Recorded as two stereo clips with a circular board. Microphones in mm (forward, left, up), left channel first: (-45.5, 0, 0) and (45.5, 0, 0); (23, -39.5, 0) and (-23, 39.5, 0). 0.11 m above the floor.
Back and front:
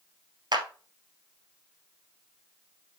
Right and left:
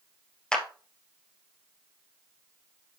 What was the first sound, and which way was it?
A clap, 20° left.